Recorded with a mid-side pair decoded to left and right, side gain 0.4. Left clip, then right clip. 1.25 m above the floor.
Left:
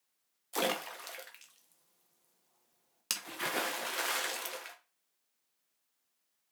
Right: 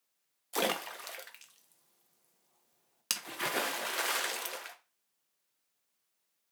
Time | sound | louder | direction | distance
0.5 | a splash | right 1 dB | 15° right | 0.6 m